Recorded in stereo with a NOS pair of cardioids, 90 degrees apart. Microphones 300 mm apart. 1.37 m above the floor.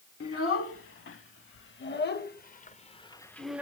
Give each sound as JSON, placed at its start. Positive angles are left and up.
{"t": 0.2, "sound": "a child speaking", "azimuth_deg": 50, "distance_m": 2.0}